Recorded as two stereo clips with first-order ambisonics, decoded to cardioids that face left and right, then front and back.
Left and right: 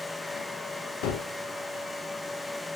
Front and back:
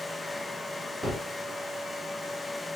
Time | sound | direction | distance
1.0 | a gunshot | 90° left | 1.0 m